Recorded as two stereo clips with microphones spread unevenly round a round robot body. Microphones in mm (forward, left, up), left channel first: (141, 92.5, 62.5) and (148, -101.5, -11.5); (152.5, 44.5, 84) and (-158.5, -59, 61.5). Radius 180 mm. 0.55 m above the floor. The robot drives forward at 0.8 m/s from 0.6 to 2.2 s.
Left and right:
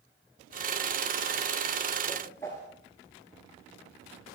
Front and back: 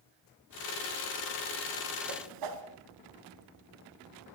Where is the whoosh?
175° left, 2 m.